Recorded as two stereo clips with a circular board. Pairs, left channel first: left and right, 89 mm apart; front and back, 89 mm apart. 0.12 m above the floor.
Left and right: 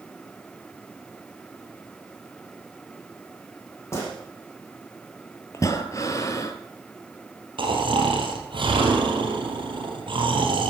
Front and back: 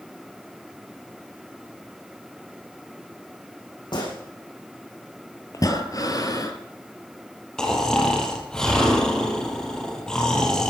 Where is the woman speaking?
No woman speaking in this recording.